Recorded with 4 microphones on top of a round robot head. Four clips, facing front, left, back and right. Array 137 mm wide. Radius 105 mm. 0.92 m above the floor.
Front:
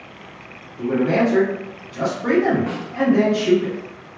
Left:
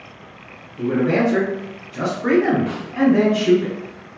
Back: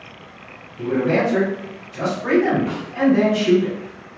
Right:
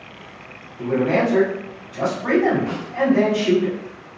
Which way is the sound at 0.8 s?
75° left.